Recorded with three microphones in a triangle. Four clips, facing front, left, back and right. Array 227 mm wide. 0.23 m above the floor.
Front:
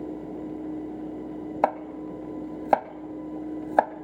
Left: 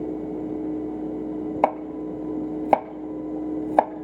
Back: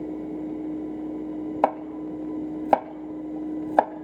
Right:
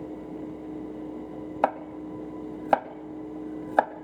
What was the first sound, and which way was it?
Chopping, 115° left.